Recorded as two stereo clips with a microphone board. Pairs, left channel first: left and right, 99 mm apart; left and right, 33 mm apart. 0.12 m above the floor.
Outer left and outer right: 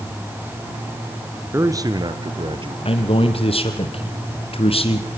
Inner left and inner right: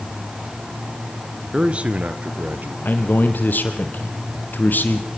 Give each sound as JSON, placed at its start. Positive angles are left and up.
{"t": 1.5, "sound": "a man speaking", "side_deg": -25, "distance_m": 1.8}
{"t": 2.9, "sound": "a man speaking", "side_deg": 70, "distance_m": 3.5}